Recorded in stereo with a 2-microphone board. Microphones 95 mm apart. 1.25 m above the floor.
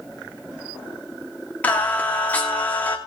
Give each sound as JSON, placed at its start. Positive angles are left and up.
{"t": 1.6, "sound": "singing", "side_deg": 15, "distance_m": 2.5}